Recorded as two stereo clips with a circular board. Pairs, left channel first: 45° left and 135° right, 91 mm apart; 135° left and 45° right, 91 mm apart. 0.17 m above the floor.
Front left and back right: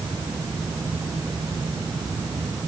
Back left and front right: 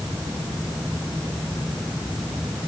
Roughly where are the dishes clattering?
No dishes clattering in this recording.